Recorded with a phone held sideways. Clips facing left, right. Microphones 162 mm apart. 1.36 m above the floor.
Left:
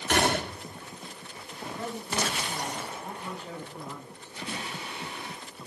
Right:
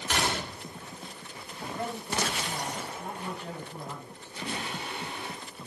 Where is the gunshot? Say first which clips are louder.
Left 6 dB; 55° left (ahead or behind), 1.3 m.